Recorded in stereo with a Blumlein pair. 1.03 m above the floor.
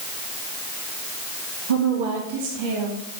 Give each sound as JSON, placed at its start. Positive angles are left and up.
{"t": 1.7, "sound": "a woman speaking", "azimuth_deg": -65, "distance_m": 2.0}